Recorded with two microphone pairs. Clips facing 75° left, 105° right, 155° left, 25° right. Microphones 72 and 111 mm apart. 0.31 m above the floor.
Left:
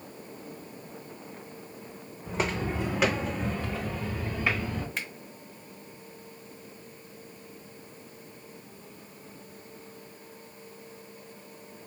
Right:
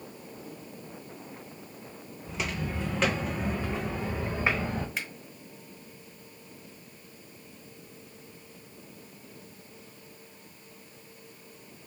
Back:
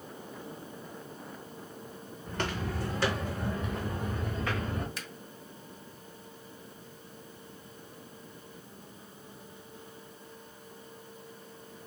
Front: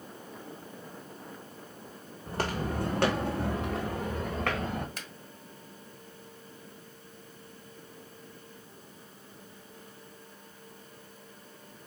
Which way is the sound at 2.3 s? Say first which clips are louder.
Left 4 dB, front 3 dB; 35° left.